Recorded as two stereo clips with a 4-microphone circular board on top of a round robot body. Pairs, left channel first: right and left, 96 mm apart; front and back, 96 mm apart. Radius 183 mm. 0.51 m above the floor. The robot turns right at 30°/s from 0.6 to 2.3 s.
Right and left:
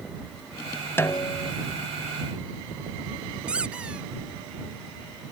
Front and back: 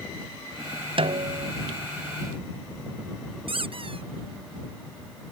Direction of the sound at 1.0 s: 155° right.